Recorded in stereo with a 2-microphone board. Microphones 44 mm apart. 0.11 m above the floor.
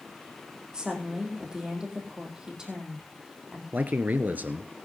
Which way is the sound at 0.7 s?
15° right (ahead or behind).